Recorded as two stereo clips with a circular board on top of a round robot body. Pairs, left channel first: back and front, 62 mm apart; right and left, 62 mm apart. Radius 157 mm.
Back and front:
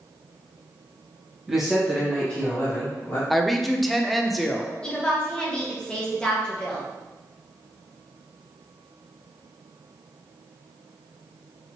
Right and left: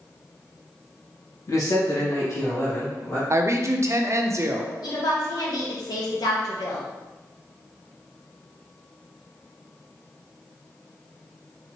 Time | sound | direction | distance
1.5 | a man speaking | 80° right | 1.4 m
3.3 | a woman speaking | 95° left | 0.6 m
4.8 | a woman speaking | 100° right | 1.1 m